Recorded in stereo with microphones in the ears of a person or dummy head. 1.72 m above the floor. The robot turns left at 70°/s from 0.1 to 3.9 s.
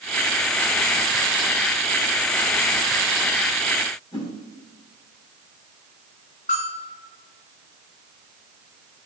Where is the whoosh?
30° left (ahead or behind), 3 m.